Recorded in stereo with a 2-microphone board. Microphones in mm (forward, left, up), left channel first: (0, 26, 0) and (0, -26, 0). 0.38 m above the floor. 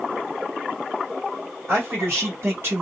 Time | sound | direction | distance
1.7 | a man speaking | 55° right (ahead or behind) | 1.9 m